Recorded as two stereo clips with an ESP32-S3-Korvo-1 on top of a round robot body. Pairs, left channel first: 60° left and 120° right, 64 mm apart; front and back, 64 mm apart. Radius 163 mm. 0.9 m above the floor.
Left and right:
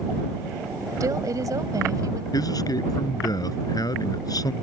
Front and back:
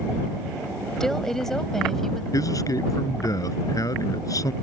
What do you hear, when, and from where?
1.0 s a woman speaking: 85° right
2.3 s a man speaking: 35° left